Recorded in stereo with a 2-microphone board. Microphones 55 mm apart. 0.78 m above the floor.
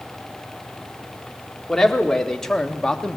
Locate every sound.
1.7 s a man speaking: 5° left (ahead or behind), 1.8 m; by 3.2 s 15° left (ahead or behind), 1.1 m